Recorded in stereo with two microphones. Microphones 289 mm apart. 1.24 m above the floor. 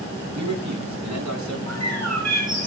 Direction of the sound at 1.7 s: 70° right (ahead or behind).